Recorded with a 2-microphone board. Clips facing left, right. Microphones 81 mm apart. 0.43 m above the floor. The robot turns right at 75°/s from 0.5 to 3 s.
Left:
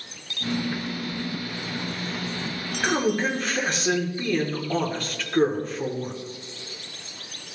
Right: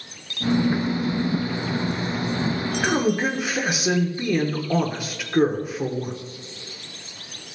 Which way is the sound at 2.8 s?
5° right (ahead or behind).